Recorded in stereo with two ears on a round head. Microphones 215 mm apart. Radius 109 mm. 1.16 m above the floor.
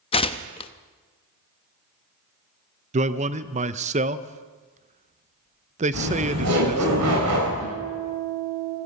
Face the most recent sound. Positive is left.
turn(degrees=-75)  # may be behind; listen again after turning